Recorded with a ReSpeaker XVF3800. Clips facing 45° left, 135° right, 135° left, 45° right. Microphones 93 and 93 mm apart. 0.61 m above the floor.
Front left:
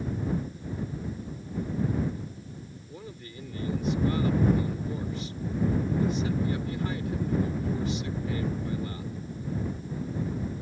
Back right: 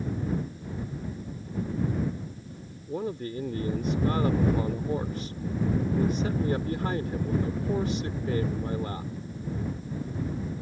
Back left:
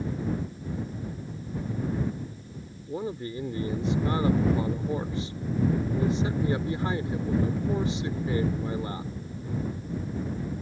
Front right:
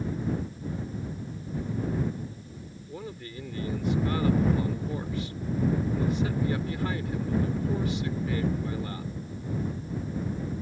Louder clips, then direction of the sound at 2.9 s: Back right 16 dB, back left 8 dB; 165° right.